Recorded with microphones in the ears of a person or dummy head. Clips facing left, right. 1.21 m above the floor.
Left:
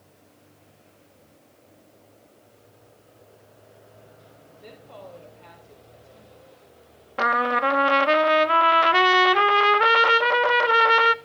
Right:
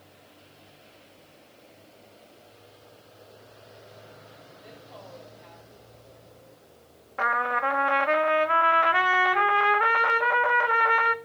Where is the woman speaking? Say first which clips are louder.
Left 5 dB; 55° left (ahead or behind), 4 m.